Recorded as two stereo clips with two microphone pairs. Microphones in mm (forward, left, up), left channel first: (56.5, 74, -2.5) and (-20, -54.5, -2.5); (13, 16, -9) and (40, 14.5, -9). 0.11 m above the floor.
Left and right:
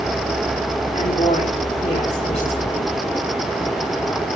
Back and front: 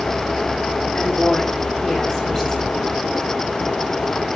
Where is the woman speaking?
95° left, 9 m; by 2.9 s 100° left, 9.5 m.